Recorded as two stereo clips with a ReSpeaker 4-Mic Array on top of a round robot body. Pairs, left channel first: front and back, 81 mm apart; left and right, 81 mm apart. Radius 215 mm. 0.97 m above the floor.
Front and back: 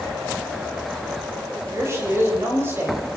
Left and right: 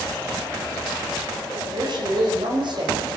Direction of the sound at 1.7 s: 125° right.